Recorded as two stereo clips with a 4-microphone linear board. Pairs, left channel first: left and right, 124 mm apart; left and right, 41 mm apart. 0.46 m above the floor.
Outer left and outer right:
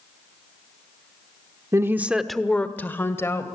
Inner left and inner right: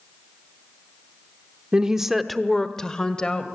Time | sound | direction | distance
1.7 | a woman speaking | 25° right (ahead or behind) | 0.8 m